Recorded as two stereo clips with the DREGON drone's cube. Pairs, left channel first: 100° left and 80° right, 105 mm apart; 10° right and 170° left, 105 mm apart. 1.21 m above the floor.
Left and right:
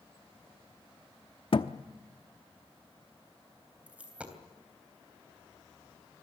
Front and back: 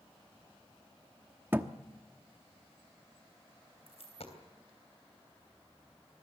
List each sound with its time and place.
1.5 s a thud: 105° left, 0.9 m
3.9 s a dropped coin: straight ahead, 3 m